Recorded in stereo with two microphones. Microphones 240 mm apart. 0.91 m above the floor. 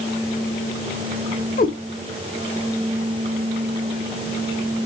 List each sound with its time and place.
1.6 s a cat meowing: 35° left (ahead or behind), 0.7 m